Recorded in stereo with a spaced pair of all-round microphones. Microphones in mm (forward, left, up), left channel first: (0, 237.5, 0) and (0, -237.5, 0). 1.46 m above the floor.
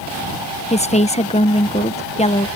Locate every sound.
0.7 s a woman speaking: 15° left (ahead or behind)